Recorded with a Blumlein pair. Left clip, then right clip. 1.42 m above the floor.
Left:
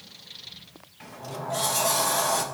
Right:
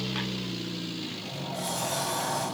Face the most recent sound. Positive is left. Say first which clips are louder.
# even
turn(degrees=50)